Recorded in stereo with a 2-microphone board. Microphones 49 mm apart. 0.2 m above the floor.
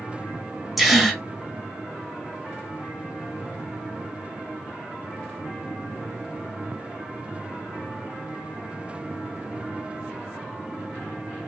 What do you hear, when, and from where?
0.8 s a gasp: centre (ahead or behind), 0.7 m